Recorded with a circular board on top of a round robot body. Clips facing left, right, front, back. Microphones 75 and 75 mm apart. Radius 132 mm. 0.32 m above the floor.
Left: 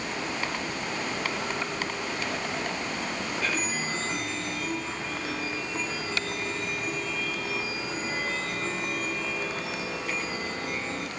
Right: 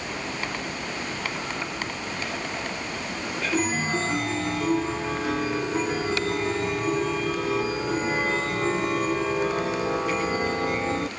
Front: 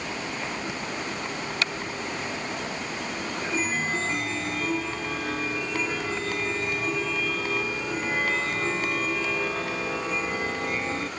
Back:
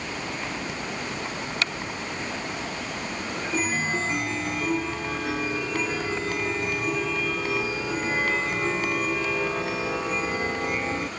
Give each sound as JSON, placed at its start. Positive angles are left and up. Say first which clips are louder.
{"t": 3.5, "sound": "a chime", "louder": "right 6 dB, back 2 dB", "azimuth_deg": -100}